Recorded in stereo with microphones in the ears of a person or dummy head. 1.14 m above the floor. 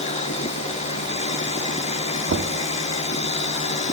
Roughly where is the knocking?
Right.